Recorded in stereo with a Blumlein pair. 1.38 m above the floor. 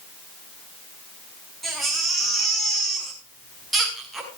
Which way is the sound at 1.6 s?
10° right.